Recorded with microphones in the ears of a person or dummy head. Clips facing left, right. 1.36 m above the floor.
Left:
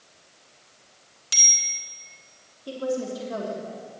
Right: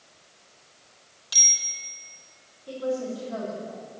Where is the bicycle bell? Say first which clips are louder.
Left 3 dB; 45° left (ahead or behind), 3.5 m.